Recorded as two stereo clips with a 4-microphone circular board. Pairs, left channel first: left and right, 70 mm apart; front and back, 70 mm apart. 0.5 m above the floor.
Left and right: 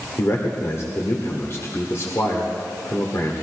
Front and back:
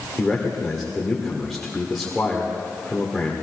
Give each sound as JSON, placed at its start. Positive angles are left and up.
{"t": 0.2, "sound": "a man speaking", "azimuth_deg": 85, "distance_m": 1.7}